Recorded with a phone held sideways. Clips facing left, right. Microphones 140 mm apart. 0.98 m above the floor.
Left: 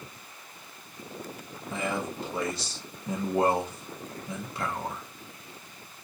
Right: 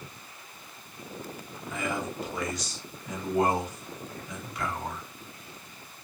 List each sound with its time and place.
1.7 s a man speaking: 30° left (ahead or behind), 0.9 m